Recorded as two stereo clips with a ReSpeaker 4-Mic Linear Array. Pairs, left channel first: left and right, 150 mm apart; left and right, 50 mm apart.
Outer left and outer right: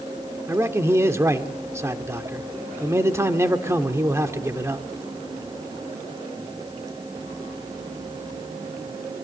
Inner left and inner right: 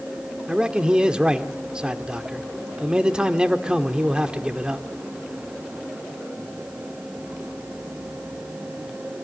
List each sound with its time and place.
0.5 s a man speaking: 20° right (ahead or behind), 1.2 m